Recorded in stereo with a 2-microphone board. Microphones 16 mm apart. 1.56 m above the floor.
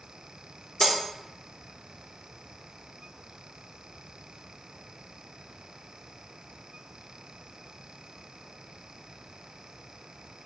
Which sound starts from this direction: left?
Breaking glass, at 0.8 s.